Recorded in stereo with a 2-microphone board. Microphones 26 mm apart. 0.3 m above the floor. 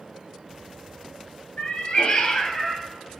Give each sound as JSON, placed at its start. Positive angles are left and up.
{"t": 1.6, "sound": "a cat meowing", "side_deg": 60, "distance_m": 0.6}